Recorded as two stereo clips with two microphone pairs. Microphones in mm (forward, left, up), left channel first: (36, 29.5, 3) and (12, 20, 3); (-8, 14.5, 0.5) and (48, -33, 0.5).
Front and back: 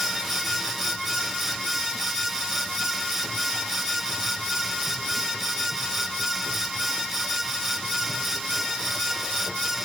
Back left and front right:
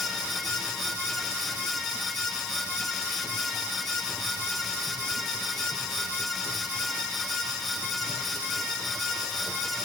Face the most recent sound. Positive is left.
No sound to turn to.